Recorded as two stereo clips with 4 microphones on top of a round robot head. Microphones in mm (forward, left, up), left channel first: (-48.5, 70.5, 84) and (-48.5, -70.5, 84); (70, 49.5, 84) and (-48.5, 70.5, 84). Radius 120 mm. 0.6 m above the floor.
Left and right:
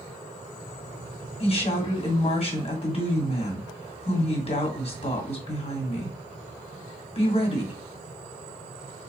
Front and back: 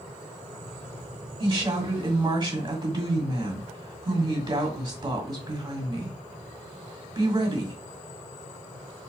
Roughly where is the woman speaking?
Behind left.